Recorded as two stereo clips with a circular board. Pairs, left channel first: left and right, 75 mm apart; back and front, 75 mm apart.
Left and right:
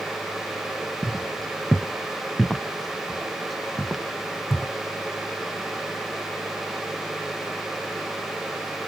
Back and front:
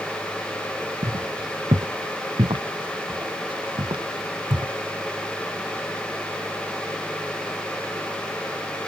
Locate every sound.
1.0 s footsteps: 10° left; by 4.7 s 5° right